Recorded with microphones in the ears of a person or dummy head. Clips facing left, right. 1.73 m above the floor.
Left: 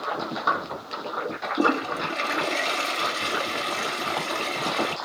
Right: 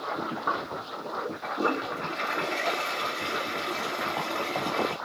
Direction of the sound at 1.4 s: 60° left (ahead or behind).